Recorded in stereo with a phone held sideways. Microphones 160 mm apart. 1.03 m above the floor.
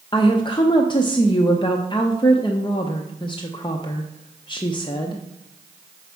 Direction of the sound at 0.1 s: 30° left (ahead or behind).